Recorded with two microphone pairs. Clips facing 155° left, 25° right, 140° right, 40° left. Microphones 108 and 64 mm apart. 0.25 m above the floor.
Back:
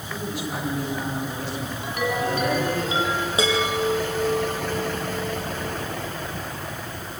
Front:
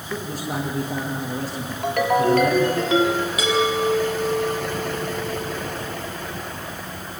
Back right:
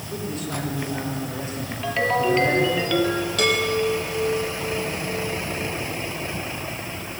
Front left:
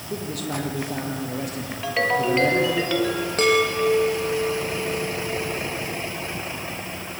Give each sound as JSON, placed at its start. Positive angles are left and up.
{"t": 0.1, "sound": "a man speaking", "azimuth_deg": 20, "distance_m": 8.5}
{"t": 1.8, "sound": "a ringtone", "azimuth_deg": -40, "distance_m": 3.0}
{"t": 3.4, "sound": "a chime", "azimuth_deg": 95, "distance_m": 6.0}